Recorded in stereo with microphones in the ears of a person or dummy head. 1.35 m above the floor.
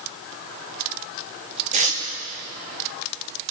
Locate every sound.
1.7 s tearing paper: 35° right (ahead or behind), 1.2 m